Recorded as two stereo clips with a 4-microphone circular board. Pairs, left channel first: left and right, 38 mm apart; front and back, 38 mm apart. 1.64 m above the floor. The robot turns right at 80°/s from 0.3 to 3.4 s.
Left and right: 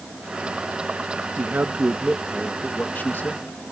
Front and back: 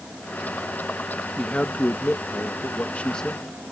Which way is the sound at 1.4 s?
75° right.